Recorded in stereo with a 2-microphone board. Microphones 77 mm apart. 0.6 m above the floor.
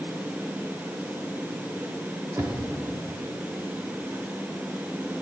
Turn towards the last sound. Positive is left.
turn(degrees=-45)  # may be behind; listen again after turning